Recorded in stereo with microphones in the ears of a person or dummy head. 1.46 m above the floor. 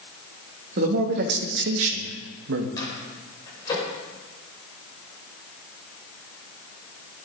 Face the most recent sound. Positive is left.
turn(degrees=25)  # may be behind; listen again after turning